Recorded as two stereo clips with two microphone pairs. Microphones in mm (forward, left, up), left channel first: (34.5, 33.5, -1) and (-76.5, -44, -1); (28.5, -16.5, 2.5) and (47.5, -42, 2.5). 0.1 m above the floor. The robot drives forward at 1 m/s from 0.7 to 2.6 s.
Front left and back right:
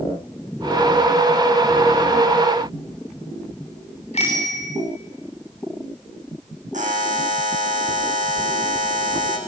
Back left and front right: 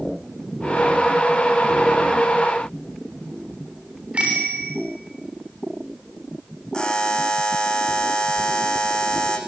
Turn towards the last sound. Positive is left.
turn(degrees=-165)